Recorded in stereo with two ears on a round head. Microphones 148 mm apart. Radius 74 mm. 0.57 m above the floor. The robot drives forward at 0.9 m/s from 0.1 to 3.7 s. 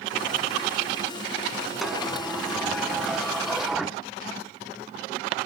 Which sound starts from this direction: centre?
A sliding door, at 1.8 s.